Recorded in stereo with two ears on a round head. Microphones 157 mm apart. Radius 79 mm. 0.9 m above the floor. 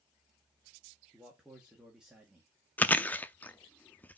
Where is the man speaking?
5° right (ahead or behind), 1.7 m.